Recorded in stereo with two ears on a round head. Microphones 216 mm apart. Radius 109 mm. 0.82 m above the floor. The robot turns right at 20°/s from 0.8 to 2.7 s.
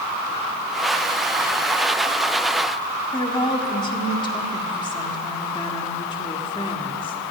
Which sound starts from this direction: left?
A woman speaking, at 3.1 s.